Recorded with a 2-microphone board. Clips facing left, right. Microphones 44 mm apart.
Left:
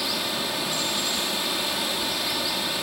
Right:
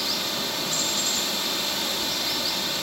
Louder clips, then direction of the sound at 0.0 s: Left 1 dB; 10° left (ahead or behind).